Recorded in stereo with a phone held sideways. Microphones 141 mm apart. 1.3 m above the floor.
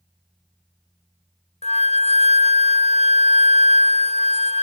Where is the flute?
50° left (ahead or behind), 0.5 m.